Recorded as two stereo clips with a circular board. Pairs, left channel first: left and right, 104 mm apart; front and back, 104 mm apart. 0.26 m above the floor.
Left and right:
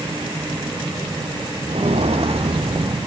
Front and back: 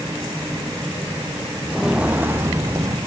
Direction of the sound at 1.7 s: 90° right.